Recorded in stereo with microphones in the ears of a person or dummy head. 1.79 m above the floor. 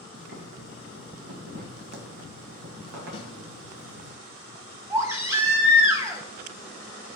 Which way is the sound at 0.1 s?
70° right (ahead or behind).